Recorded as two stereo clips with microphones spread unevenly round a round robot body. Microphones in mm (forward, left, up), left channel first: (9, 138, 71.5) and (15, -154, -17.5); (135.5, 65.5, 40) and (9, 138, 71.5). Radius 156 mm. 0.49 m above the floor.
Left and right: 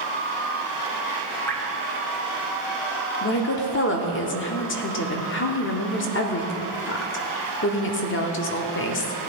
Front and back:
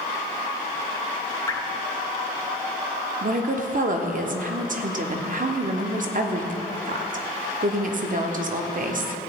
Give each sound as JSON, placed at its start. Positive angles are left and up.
{"t": 1.5, "sound": "dripping", "azimuth_deg": -15, "distance_m": 1.3}
{"t": 3.2, "sound": "a woman speaking", "azimuth_deg": 145, "distance_m": 1.1}